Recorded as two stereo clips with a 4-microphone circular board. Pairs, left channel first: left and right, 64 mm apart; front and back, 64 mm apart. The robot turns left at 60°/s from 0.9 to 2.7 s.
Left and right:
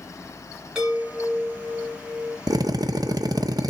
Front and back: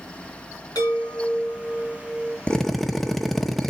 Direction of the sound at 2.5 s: 75° right.